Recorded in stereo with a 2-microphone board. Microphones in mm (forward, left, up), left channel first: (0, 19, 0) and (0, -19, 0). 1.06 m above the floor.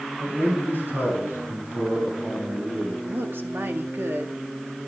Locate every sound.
0.2 s a man speaking: 50° right (ahead or behind), 9.5 m; by 2.9 s 70° right (ahead or behind), 9.5 m
3.0 s a woman speaking: 75° right (ahead or behind), 1.5 m